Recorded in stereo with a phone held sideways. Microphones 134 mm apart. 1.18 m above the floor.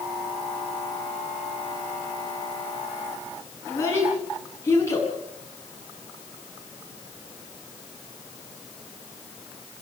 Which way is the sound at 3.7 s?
20° left (ahead or behind).